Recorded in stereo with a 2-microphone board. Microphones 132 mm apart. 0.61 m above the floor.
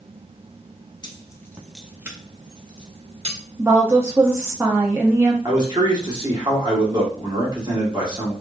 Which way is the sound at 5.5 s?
35° right (ahead or behind).